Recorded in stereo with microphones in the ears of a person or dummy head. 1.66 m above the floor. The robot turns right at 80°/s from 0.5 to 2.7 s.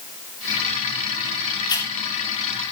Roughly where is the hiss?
Left.